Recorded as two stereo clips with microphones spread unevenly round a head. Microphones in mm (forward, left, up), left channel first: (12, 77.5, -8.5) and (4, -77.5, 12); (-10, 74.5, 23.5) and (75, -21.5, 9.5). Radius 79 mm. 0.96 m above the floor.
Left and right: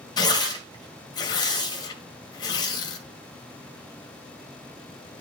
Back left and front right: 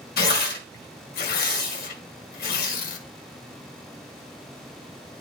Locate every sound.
0.2 s tearing paper: 155° left, 2 m